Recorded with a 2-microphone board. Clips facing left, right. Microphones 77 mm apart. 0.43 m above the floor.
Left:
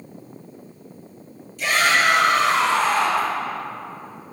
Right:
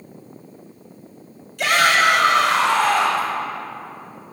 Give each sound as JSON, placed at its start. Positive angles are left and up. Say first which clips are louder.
{"t": 1.6, "sound": "a shout", "louder": "right 3 dB", "side_deg": -70, "distance_m": 2.0}